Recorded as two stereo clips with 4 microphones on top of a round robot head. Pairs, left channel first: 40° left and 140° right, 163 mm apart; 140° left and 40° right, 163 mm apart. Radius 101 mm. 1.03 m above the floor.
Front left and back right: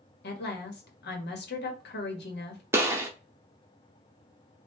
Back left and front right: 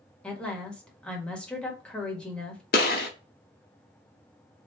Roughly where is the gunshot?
Behind left.